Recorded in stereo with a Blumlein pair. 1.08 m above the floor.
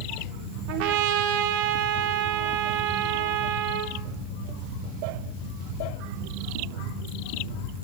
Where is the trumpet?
40° right, 4 m.